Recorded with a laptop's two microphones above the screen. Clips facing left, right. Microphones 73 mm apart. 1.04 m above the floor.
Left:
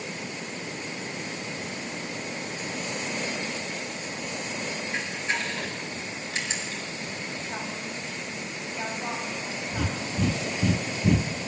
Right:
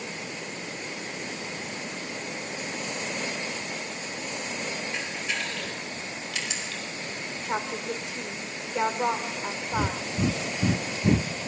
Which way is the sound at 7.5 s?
85° right.